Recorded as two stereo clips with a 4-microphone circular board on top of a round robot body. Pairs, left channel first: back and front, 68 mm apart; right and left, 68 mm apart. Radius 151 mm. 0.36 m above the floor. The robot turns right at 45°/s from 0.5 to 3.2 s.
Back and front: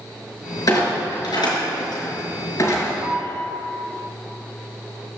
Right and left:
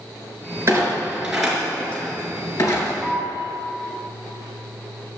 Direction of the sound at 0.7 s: 140° left.